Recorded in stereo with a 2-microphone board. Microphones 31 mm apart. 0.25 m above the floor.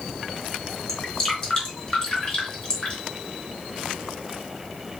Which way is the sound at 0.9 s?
25° left (ahead or behind).